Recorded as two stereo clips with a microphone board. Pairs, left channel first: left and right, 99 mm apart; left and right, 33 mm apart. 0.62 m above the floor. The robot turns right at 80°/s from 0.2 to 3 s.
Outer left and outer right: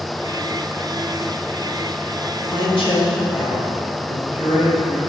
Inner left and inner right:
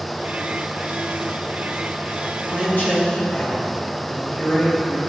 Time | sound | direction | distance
2.5 | a woman speaking | 50° left | 2.5 m